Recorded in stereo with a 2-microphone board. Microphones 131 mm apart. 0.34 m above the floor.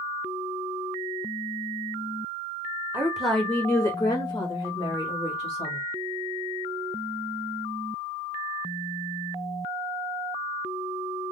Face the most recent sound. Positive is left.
turn(degrees=55)  # may be behind; listen again after turning